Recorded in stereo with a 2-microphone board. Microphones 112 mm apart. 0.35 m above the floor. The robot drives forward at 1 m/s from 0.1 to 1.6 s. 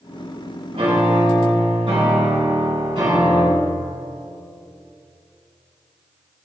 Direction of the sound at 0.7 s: 70° right (ahead or behind).